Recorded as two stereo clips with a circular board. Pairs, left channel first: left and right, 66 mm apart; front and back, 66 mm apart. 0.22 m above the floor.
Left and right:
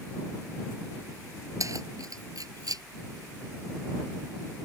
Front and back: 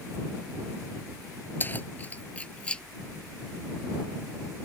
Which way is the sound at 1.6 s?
60° right.